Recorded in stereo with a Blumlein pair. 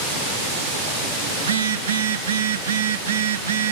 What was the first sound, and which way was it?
A phone buzzing, 65° right.